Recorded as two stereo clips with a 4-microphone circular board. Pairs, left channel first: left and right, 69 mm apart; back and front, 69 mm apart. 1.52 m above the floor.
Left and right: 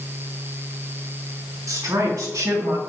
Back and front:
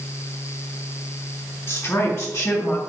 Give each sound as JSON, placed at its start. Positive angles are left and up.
{"t": 1.7, "sound": "a woman speaking", "azimuth_deg": -130, "distance_m": 3.5}